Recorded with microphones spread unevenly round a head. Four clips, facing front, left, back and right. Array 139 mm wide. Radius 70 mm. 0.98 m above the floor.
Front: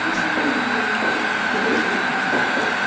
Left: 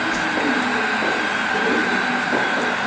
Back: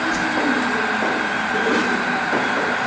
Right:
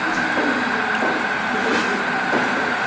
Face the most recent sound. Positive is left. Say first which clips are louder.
# right 1 dB, even
turn(degrees=165)